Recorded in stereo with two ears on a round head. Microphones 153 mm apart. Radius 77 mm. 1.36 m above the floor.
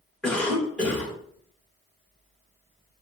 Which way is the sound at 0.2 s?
5° left (ahead or behind).